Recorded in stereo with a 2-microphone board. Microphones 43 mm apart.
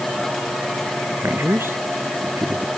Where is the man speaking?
65° right (ahead or behind).